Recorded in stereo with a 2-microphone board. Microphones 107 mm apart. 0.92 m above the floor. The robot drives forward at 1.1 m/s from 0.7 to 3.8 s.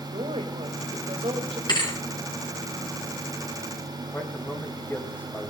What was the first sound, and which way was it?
A woman speaking, 70° right (ahead or behind).